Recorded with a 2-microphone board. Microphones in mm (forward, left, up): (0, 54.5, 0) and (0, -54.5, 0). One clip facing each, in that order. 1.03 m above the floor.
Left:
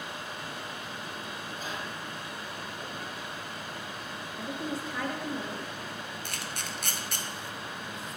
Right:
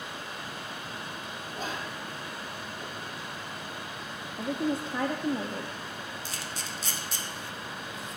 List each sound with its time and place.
1.6 s whispering: 45° right (ahead or behind), 0.7 m
4.4 s a woman speaking: 25° right (ahead or behind), 0.5 m
6.2 s a camera shutter: 60° left (ahead or behind), 0.7 m